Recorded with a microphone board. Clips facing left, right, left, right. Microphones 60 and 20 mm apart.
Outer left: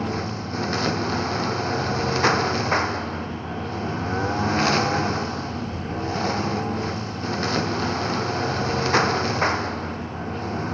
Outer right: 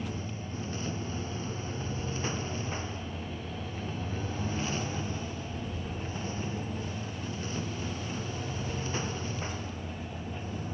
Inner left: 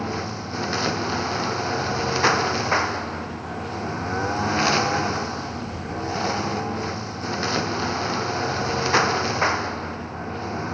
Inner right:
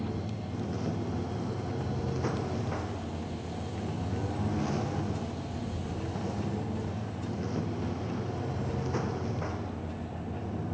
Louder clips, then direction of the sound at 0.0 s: Outer left 11 dB, inner left 8 dB; 80° left.